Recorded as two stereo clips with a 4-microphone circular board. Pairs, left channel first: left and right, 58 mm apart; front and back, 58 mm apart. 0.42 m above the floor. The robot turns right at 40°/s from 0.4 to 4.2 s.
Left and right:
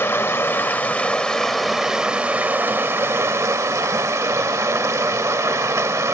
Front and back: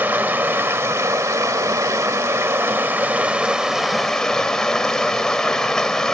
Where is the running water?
130° left, 1.1 m; by 6.2 s 80° right, 1.1 m.